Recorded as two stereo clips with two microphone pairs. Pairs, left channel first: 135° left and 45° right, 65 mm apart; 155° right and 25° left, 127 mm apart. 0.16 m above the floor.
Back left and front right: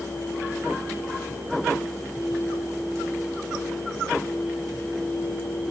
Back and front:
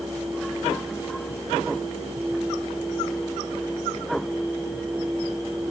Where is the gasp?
No gasp in this recording.